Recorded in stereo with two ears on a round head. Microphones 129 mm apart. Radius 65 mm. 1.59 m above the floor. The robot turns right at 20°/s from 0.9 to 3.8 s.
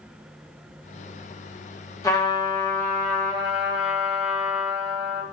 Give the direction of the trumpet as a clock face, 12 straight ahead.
7 o'clock.